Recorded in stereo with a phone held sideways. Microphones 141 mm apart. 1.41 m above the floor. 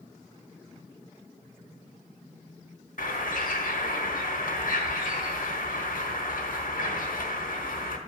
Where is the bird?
80° left, 1.3 m.